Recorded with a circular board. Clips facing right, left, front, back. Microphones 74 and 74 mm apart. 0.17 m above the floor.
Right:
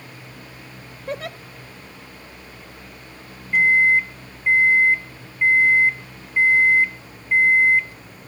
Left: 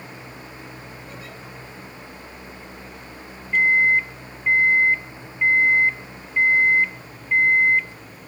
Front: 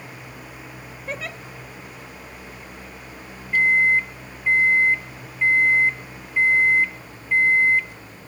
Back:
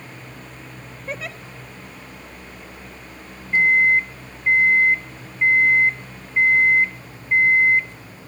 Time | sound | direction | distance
1.1 | a giggle | 90° right | 1.1 m
3.5 | a microwave | 160° right | 0.9 m